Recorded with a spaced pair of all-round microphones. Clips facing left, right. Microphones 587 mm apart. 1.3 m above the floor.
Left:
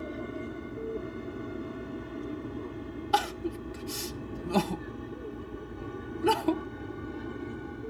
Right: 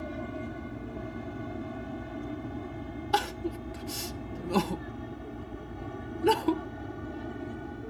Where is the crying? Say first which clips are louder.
Even; 5° left (ahead or behind).